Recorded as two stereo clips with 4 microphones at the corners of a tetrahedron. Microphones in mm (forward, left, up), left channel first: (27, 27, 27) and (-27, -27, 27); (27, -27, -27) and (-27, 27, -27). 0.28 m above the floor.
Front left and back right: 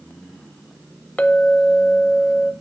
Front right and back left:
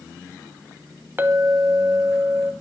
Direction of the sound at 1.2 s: 100° left.